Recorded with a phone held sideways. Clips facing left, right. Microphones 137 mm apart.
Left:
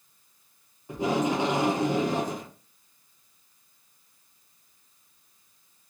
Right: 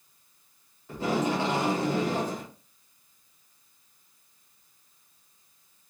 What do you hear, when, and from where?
0.9 s tape being pulled: 15° left (ahead or behind), 0.8 m